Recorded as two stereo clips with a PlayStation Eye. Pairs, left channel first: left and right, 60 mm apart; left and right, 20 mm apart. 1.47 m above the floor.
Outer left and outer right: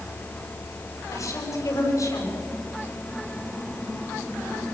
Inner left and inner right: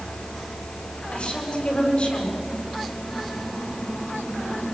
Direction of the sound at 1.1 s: 65° left (ahead or behind).